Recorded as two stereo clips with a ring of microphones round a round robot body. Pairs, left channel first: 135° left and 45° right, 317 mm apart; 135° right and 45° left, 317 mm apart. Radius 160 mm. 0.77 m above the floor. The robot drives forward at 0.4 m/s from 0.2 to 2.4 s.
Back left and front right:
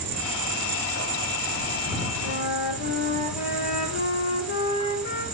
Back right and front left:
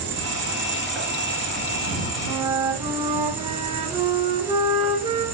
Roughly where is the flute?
Behind left.